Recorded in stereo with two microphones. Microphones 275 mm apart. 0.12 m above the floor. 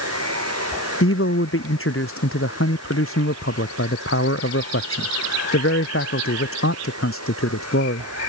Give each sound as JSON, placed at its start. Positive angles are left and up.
{"t": 0.0, "sound": "running water", "side_deg": -65}
{"t": 1.0, "sound": "a man speaking", "side_deg": 50}